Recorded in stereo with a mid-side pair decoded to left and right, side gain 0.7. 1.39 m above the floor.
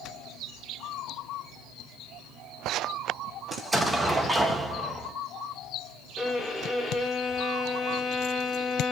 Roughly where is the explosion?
Ahead.